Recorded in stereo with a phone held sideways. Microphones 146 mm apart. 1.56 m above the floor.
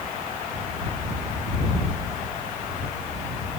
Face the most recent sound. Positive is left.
No sound to turn to.